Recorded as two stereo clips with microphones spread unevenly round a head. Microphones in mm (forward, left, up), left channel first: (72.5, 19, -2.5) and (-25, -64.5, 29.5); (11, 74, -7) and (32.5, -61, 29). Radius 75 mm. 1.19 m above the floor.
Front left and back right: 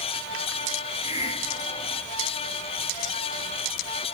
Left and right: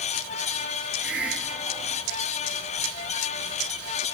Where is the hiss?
5° left, 2.5 m.